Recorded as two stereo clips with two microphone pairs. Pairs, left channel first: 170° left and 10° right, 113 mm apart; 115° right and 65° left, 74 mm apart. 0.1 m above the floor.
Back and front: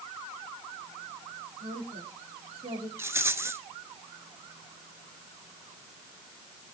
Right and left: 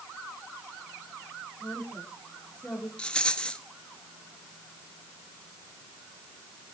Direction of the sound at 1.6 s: 40° right.